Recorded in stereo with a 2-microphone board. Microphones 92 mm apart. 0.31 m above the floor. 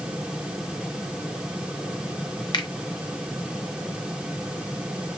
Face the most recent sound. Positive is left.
turn(degrees=50)  # may be behind; listen again after turning